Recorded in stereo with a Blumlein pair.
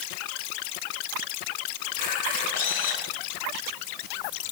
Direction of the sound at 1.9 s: 55° left.